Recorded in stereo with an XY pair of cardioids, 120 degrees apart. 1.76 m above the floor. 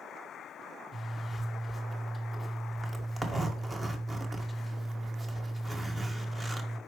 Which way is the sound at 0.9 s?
25° right.